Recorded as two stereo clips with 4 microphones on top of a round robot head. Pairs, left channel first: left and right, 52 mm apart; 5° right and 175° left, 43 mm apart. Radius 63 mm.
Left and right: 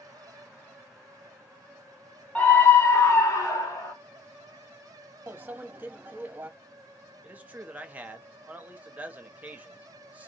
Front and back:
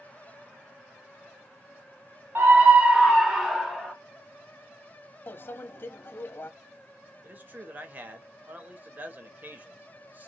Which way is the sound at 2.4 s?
150° left.